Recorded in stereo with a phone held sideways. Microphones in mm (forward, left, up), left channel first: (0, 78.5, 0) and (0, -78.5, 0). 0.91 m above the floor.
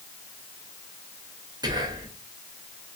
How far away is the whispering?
About 0.7 m.